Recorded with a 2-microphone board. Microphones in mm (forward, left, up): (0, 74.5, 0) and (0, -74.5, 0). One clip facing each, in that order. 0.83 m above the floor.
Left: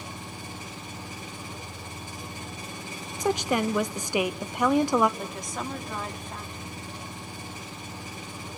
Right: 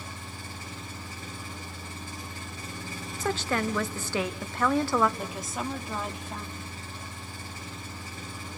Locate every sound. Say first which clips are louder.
0.0 s an engine running: left 3 dB; 20° left (ahead or behind), 3.5 m
3.2 s a woman speaking: left 4 dB; 15° left (ahead or behind), 0.7 m
5.2 s a woman speaking: even; 5° right (ahead or behind), 1.5 m